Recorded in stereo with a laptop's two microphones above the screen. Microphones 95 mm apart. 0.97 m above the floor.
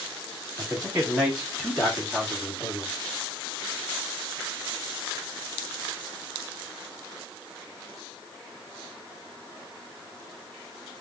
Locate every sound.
0.6 s a man speaking: 20° right (ahead or behind), 2.0 m; by 2.9 s 20° left (ahead or behind), 1.5 m